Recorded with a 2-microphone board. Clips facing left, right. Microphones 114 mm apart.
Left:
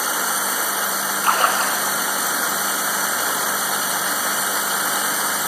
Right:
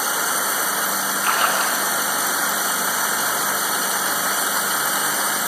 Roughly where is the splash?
Left.